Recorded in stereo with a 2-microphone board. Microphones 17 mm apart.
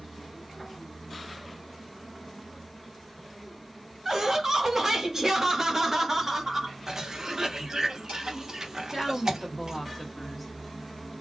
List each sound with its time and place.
4.0 s laughter: 25° right (ahead or behind), 1.4 m
6.9 s a cough: 30° right (ahead or behind), 1.2 m
8.9 s a woman speaking: 10° left (ahead or behind), 1.5 m